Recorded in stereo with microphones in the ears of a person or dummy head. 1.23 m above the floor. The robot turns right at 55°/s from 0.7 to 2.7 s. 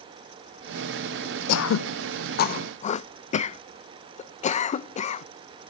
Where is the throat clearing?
70° left (ahead or behind), 0.6 m; by 5.2 s 40° left (ahead or behind), 0.6 m.